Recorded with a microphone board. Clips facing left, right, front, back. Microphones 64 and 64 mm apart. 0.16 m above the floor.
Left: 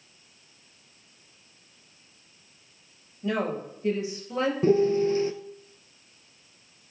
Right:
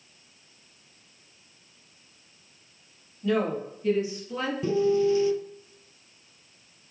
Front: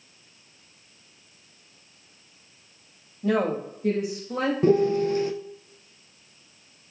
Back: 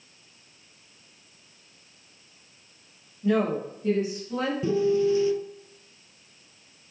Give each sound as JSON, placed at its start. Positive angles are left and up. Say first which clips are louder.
{"t": 3.2, "sound": "a woman speaking", "louder": "right 2 dB, even", "azimuth_deg": 25, "distance_m": 4.0}
{"t": 4.6, "sound": "a piano", "louder": "left 1 dB, front 2 dB", "azimuth_deg": 40, "distance_m": 0.7}